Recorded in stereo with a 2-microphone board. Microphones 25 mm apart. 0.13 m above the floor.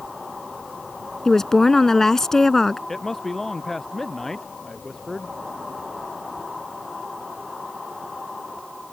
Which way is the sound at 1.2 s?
20° left (ahead or behind).